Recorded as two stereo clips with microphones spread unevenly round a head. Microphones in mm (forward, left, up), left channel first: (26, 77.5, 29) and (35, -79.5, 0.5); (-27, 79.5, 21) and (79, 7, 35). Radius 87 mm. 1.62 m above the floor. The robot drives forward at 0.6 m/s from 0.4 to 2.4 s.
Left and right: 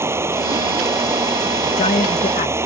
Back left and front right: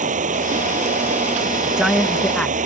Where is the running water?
10° right.